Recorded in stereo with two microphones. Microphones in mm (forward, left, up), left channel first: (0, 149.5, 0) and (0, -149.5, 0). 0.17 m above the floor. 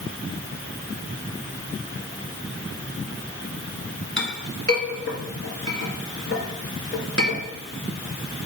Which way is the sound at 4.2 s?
40° left (ahead or behind).